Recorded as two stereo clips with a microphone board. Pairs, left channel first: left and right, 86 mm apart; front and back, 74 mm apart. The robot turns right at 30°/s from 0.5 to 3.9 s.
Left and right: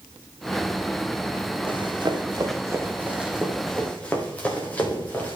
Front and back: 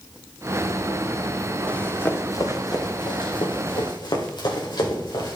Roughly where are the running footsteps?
Right.